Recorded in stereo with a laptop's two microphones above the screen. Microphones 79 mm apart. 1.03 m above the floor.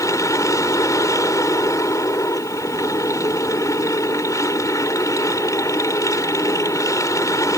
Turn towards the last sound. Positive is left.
turn(degrees=45)  # may be behind; listen again after turning